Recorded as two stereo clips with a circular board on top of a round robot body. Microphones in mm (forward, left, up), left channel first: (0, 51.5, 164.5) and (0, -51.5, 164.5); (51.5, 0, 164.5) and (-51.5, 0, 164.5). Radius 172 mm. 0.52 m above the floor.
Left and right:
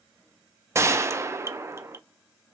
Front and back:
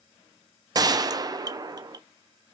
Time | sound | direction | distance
0.8 | a gunshot | 145° right | 0.6 m